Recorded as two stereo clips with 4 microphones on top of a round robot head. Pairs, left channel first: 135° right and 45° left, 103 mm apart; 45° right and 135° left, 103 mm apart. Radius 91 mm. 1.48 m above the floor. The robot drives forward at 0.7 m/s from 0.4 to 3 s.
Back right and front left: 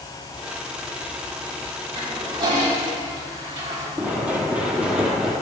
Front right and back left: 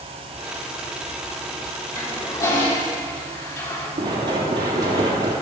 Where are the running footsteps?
115° left, 4 m; by 5.3 s 125° left, 3.5 m.